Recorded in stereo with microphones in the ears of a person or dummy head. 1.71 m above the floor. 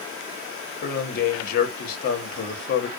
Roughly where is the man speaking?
Left.